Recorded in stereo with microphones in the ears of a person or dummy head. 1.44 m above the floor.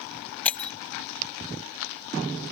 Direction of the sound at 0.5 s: 5° left (ahead or behind).